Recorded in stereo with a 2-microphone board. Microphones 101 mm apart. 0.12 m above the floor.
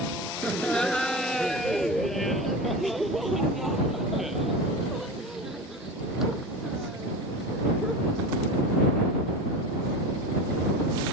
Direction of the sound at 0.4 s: 10° left (ahead or behind).